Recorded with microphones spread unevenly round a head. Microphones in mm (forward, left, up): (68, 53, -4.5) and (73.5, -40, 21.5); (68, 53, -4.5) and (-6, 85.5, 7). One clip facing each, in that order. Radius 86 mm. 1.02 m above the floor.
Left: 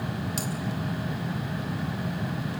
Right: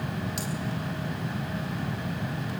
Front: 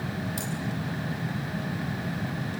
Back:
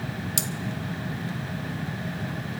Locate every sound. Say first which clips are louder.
0.4 s cutlery clinking: left 1 dB, back 1 dB; 160° left, 1.4 m